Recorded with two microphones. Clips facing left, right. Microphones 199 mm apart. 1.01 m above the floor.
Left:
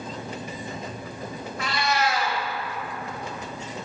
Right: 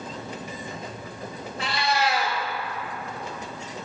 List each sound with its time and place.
1.6 s a cat meowing: 30° right (ahead or behind), 1.3 m